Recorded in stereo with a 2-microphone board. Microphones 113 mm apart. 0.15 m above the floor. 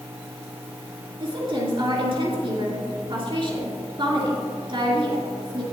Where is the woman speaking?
50° right (ahead or behind), 2.5 m.